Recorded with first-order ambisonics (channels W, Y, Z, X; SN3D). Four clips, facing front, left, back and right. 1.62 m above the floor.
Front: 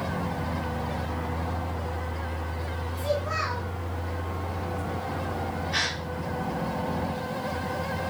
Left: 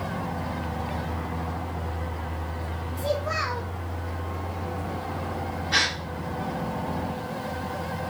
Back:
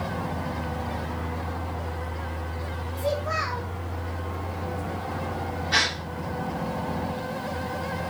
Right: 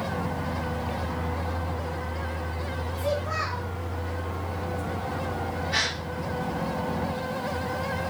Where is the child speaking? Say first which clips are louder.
Left 2 dB, back 1 dB; 115° left, 0.6 m.